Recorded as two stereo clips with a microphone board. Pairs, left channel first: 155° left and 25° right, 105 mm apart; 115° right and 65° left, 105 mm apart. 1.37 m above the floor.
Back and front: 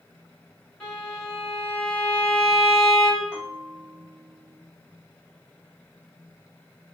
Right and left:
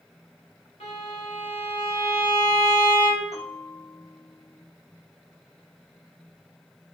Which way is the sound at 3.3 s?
105° right.